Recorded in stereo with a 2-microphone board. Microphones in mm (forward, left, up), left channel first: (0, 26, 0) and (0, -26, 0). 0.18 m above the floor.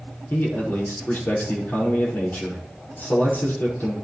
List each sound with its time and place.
0.3 s a man speaking: 35° left (ahead or behind), 5 m